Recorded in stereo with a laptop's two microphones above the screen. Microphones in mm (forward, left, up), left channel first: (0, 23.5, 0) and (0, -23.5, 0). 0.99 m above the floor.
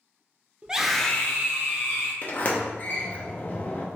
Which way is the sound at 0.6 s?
20° right (ahead or behind).